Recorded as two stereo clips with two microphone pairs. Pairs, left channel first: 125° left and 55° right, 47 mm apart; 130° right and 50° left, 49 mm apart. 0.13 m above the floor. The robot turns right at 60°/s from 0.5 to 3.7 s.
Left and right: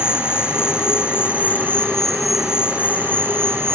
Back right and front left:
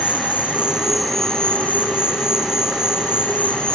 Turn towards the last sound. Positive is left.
turn(degrees=-60)